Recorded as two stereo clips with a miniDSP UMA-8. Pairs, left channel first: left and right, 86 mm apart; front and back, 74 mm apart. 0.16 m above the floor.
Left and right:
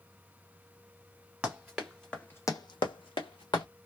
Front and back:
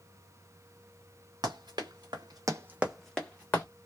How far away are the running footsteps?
About 1.3 m.